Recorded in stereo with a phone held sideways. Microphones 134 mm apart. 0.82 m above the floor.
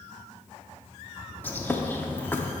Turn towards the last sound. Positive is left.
turn(degrees=15)  # may be behind; listen again after turning